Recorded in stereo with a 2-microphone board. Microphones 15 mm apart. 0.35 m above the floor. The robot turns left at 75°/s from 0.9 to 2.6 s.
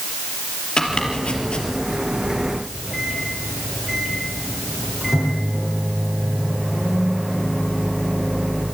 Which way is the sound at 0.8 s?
55° left (ahead or behind).